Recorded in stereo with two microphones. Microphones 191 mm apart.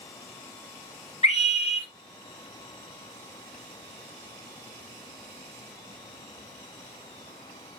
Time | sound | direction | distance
1.2 | a scream | 35° left (ahead or behind) | 2 m